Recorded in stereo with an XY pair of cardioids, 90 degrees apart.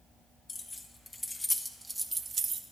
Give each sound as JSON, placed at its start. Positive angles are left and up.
{"t": 0.5, "sound": "keys jangling", "azimuth_deg": 40, "distance_m": 1.5}